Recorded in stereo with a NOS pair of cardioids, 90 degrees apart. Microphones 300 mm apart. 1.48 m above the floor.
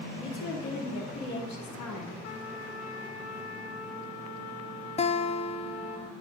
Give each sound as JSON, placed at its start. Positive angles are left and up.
{"t": 0.2, "sound": "a woman speaking", "azimuth_deg": 70, "distance_m": 3.5}
{"t": 2.2, "sound": "a trumpet", "azimuth_deg": 55, "distance_m": 2.0}
{"t": 5.0, "sound": "a guitar", "azimuth_deg": 20, "distance_m": 0.6}